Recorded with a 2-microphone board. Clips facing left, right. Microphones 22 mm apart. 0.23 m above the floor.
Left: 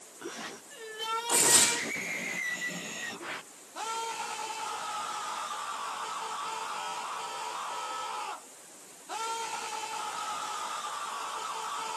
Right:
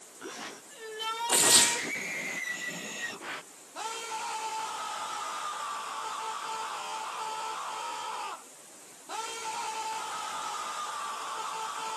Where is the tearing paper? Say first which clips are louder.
Right 2 dB; 65° right (ahead or behind), 1.6 m.